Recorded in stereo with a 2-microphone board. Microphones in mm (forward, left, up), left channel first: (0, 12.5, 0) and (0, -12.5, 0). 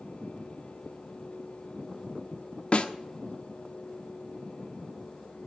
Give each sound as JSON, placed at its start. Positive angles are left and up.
{"t": 2.7, "sound": "a snare drum", "side_deg": 50, "distance_m": 1.0}